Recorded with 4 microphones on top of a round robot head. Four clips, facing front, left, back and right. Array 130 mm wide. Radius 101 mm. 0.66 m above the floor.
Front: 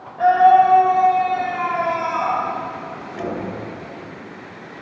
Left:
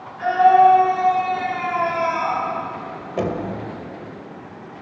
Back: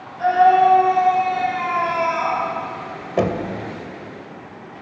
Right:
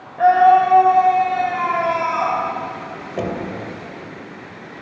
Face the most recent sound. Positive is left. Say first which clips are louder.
# left 1 dB, back 7 dB
turn(degrees=-175)